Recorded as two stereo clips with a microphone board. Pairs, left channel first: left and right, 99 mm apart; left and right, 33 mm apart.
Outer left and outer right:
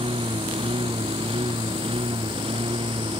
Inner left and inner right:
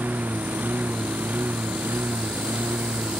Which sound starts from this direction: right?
A lawn mower, at 0.0 s.